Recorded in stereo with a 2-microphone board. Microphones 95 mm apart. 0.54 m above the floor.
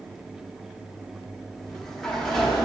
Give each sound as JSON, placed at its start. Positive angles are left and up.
{"t": 1.6, "sound": "a sliding door", "side_deg": 5, "distance_m": 1.0}